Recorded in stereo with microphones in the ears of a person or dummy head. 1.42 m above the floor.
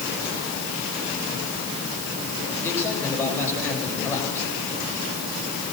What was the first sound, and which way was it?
A man speaking, 10° left (ahead or behind).